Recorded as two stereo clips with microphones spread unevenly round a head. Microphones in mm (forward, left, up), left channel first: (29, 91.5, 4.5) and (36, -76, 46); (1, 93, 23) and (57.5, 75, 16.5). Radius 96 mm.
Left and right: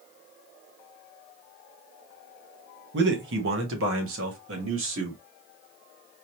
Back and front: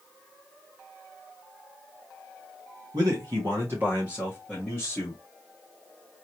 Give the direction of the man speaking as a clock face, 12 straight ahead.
2 o'clock.